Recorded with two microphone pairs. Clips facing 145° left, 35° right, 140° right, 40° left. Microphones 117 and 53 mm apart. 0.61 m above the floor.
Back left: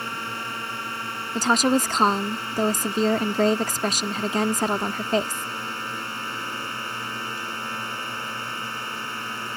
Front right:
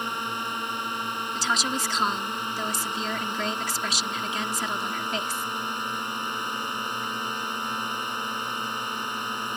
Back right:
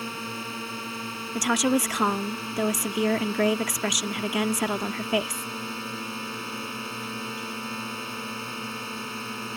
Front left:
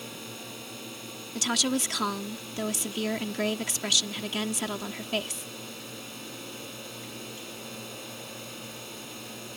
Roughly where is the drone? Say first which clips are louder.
Front right 1 dB, back right 8 dB; right.